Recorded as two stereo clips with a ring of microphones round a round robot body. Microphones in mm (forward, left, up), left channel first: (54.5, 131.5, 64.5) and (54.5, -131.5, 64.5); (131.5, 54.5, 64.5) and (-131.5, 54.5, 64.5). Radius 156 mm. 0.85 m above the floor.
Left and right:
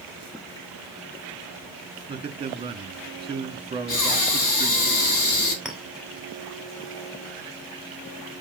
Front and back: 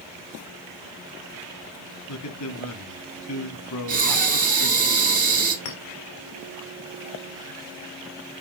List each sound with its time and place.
2.1 s a man speaking: 20° right, 1.7 m
3.9 s breathing: 125° left, 2.5 m
5.7 s a clink: straight ahead, 2.5 m